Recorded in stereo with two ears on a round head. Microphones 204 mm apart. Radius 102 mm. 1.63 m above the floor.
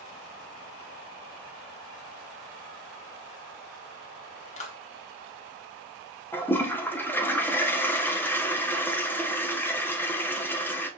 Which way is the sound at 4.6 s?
30° left (ahead or behind).